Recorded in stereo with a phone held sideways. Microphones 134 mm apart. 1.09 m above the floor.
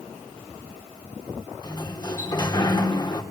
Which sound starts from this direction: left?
A sliding door, at 1.6 s.